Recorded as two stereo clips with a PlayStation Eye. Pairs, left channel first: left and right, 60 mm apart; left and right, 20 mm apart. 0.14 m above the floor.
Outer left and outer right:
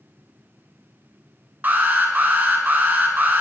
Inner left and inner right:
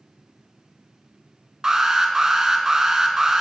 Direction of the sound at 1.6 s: 30° right (ahead or behind).